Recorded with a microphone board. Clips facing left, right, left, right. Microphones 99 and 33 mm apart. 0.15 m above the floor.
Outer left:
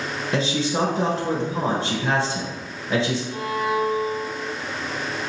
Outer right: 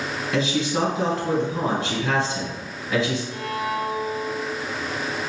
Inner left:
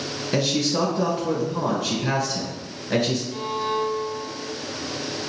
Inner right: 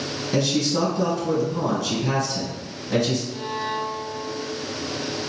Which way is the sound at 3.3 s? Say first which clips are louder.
Outer left 3 dB, inner left 2 dB; 15° left (ahead or behind).